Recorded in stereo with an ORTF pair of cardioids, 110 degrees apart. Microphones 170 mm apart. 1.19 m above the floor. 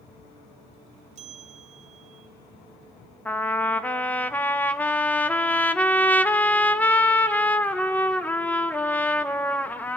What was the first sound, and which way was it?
A bell, 45° right.